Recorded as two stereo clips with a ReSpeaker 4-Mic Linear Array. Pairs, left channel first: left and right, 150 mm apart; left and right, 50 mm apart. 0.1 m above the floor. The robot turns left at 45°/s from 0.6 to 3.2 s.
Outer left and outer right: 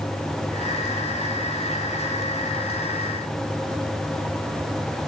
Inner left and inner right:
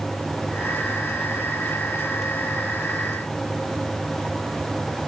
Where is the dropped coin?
I don't hear a dropped coin.